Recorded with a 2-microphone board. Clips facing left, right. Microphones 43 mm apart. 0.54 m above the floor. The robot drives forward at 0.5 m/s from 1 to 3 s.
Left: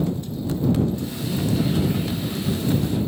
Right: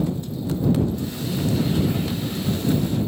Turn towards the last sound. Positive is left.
No sound to turn to.